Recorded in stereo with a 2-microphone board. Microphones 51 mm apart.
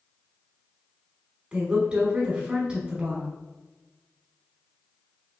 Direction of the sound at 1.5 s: 20° right (ahead or behind).